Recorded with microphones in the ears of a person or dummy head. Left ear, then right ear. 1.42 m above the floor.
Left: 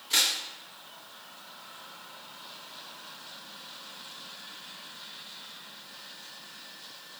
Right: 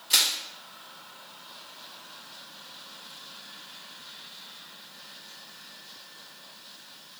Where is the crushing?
20° right (ahead or behind), 1.0 m.